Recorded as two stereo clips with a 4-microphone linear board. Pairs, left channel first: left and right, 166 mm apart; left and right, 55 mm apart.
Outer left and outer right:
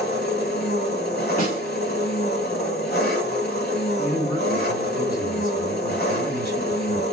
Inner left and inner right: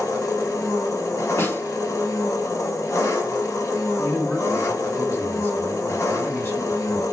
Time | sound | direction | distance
0.0 | an engine running | 70° left (ahead or behind) | 0.9 m
1.4 | a snare drum | 55° left (ahead or behind) | 2 m
4.0 | a man speaking | 55° left (ahead or behind) | 2.5 m